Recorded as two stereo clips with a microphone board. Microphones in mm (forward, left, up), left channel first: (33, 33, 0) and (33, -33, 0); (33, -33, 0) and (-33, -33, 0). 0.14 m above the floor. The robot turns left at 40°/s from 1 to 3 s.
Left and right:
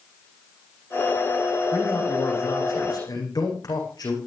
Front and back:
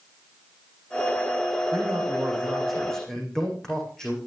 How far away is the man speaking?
About 9 m.